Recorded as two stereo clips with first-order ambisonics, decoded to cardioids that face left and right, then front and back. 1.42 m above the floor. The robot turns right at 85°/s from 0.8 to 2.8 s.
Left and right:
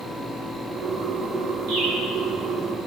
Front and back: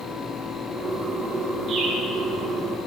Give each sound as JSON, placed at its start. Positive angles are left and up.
{"t": 1.7, "sound": "a bird", "azimuth_deg": -115, "distance_m": 3.5}